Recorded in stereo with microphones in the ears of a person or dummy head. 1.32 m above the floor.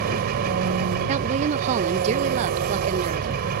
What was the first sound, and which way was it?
An engine running, 50° right (ahead or behind).